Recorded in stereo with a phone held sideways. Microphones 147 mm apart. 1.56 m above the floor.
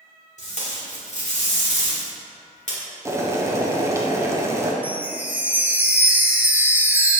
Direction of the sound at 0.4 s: 55° left (ahead or behind).